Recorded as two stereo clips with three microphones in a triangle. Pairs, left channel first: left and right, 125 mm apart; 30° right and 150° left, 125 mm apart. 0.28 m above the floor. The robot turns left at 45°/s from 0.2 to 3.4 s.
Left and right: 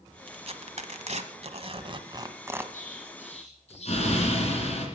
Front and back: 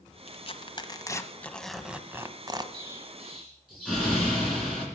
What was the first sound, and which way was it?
Tearing paper, 55° right.